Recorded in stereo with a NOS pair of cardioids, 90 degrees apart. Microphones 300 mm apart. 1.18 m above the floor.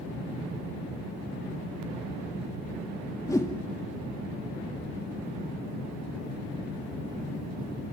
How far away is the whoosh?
About 2 m.